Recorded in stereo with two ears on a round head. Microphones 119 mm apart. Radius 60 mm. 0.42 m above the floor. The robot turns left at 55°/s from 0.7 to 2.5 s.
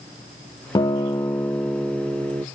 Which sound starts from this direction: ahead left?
A guitar, at 0.8 s.